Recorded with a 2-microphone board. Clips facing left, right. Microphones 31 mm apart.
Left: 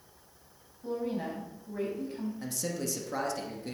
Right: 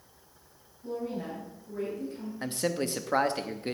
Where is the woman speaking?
35° left (ahead or behind), 5 m.